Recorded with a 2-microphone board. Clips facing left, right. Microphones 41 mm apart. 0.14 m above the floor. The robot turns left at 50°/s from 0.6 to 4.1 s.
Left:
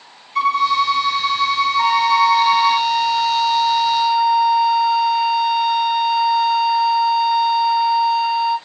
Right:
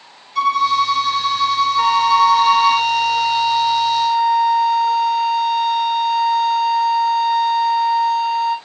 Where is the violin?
105° left, 1.0 m; by 2.8 s 5° right, 1.0 m.